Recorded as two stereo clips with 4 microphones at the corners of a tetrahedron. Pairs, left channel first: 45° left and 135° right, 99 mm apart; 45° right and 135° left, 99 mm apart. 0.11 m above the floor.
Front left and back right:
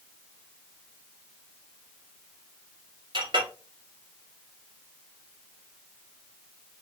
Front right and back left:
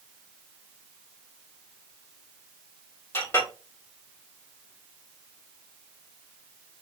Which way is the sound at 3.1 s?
110° right.